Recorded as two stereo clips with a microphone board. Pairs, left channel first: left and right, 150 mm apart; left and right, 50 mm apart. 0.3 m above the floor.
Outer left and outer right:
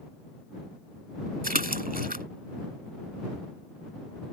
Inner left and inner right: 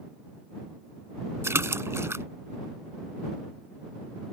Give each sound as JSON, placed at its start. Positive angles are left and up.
{"t": 1.4, "sound": "a splash", "side_deg": -75}